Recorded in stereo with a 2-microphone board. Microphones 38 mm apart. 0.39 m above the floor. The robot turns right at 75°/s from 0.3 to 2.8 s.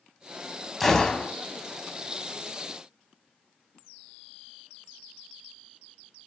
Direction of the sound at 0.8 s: Straight ahead.